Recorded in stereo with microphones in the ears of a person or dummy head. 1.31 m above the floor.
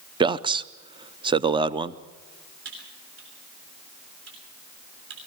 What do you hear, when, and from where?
0.2 s a man speaking: 25° right (ahead or behind), 0.6 m
2.6 s typing on a keyboard: 75° right (ahead or behind), 6.5 m